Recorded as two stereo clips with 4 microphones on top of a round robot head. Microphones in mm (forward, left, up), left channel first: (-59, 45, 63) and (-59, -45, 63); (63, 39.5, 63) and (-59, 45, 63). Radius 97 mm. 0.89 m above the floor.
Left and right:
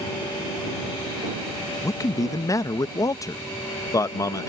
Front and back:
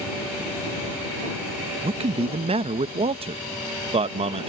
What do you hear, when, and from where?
1.8 s a man speaking: 140° left